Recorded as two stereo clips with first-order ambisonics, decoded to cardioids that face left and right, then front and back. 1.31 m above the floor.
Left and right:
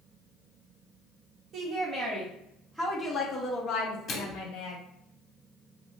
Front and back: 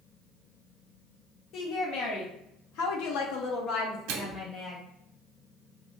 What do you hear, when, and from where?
1.5 s a woman speaking: 30° right, 1.3 m; by 4.8 s 75° left, 0.9 m
4.1 s a microwave: 155° left, 0.5 m